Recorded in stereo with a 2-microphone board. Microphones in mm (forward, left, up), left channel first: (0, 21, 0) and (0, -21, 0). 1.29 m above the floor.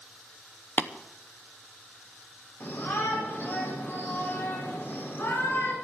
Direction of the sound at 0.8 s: 45° left (ahead or behind).